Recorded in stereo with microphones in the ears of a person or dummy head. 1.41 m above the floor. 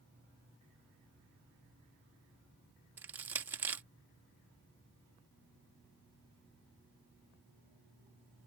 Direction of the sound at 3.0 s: 10° right (ahead or behind).